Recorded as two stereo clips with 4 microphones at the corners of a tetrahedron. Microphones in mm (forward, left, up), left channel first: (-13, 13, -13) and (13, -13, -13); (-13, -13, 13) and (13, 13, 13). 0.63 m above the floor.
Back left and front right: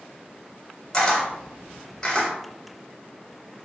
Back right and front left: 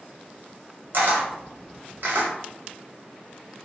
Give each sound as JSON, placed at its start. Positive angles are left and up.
{"t": 0.9, "sound": "a camera shutter", "azimuth_deg": 65, "distance_m": 1.3}